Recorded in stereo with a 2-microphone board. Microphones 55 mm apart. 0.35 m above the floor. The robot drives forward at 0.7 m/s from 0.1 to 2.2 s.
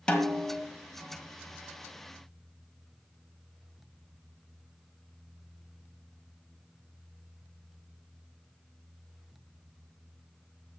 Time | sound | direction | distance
0.1 | a snare drum | 15° left (ahead or behind) | 1.5 m